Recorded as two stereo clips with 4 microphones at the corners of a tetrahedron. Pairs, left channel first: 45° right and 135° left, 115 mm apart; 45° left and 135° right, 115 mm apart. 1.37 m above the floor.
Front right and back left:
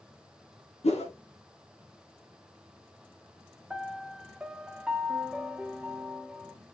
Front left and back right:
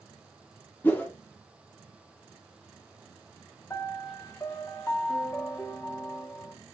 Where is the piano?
60° left, 0.5 m.